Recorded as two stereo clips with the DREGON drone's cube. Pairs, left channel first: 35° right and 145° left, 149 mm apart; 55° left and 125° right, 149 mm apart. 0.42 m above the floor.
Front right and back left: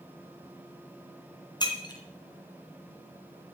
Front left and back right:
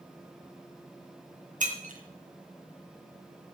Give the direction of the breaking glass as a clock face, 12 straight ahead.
3 o'clock.